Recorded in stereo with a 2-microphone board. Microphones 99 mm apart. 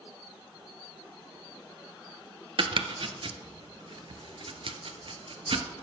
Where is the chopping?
60° right (ahead or behind), 0.6 m.